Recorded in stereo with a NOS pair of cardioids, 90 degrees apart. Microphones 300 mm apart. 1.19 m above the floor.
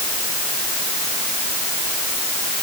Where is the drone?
I don't hear a drone.